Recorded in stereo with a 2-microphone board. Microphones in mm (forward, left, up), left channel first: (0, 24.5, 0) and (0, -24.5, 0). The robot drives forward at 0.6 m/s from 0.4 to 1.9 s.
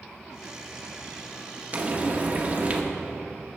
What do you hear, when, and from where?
1.7 s frying: 30° right (ahead or behind), 0.9 m